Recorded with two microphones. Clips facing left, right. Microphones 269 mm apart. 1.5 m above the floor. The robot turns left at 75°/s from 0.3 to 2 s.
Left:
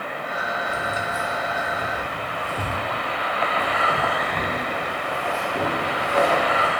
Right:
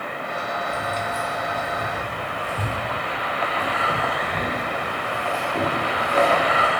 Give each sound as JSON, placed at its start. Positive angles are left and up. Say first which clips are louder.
{"t": 0.7, "sound": "keys jangling", "louder": "right 1 dB", "side_deg": 40, "distance_m": 0.6}